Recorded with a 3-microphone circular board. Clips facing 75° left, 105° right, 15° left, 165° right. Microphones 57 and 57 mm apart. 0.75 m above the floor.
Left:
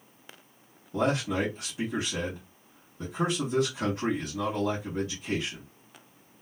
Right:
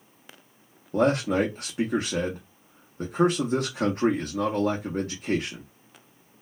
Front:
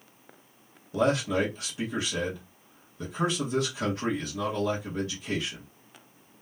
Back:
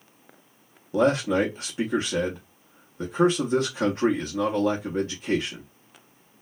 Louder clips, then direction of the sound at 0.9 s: Right 5 dB, back 4 dB; 120° right.